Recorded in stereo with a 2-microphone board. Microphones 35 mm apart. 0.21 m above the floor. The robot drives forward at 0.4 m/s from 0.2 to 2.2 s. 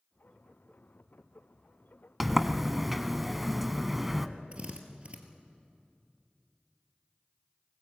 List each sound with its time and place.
2.2 s a sliding door: 5° right (ahead or behind), 0.9 m
4.5 s a drill: 35° right (ahead or behind), 2 m